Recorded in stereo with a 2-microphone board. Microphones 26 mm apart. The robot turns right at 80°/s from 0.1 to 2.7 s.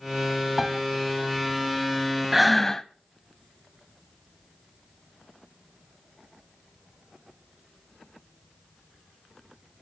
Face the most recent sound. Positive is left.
turn(degrees=15)